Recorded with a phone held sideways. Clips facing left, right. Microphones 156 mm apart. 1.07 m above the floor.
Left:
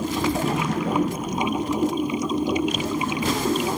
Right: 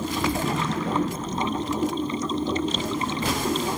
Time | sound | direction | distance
0.0 | running water | 15° left (ahead or behind) | ?